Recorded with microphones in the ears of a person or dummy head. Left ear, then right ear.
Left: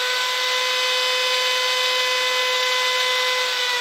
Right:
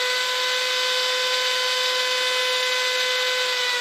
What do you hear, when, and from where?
0.0 s a machine running: 10° left (ahead or behind), 1.2 m